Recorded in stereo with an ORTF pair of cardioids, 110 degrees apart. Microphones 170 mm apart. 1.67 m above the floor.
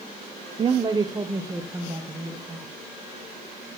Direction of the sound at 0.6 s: 30° right.